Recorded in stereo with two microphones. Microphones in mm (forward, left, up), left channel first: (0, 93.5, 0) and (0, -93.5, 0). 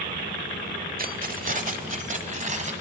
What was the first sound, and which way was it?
Keys jangling, 50° right (ahead or behind).